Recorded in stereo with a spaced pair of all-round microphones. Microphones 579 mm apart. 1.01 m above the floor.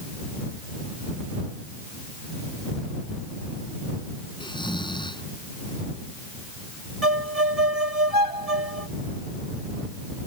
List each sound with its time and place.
4.4 s snoring: 10° left (ahead or behind)
7.0 s a violin: 75° right (ahead or behind)